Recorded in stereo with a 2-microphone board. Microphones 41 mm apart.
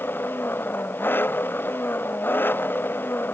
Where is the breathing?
I don't hear breathing.